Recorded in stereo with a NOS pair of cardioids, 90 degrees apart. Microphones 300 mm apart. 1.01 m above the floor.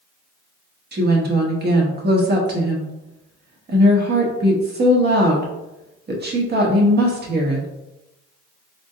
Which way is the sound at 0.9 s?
35° right.